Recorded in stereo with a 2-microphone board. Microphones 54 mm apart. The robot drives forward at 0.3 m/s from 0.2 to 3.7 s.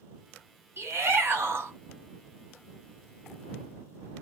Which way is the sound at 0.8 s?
50° right (ahead or behind).